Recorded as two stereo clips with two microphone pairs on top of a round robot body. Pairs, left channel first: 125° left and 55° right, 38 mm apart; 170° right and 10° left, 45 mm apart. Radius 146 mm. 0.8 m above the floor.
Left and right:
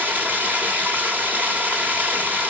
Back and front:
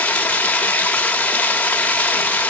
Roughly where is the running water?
Right.